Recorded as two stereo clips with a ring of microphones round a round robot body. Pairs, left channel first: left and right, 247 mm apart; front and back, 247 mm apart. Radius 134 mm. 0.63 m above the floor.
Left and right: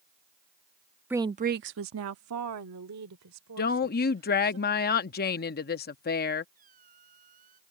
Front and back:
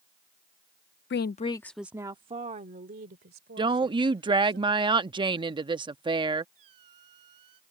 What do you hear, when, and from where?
1.1 s a woman speaking: 10° right; by 4.6 s 125° right
3.6 s a woman speaking: 115° left
6.5 s a squeak: 155° right